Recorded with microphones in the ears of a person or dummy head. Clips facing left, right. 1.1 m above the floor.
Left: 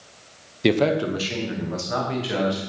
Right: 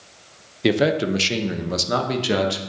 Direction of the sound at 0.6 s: 5° left (ahead or behind).